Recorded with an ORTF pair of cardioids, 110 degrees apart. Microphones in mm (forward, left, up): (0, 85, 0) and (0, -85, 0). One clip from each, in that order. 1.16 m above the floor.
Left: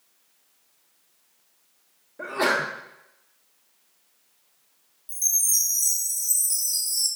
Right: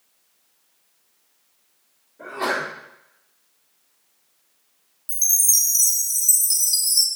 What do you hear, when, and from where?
2.2 s a sneeze: 65° left, 1.2 m
5.1 s a chime: 45° right, 0.6 m